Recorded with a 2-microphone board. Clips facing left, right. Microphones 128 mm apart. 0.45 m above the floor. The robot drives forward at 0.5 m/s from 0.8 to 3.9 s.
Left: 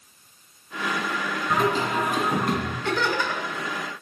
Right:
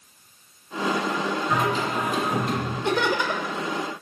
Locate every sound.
1.5 s singing: 45° left (ahead or behind), 2 m; by 2.8 s 60° left (ahead or behind), 1.8 m
2.9 s laughter: 20° right (ahead or behind), 0.9 m; by 3.5 s 15° right (ahead or behind), 1.1 m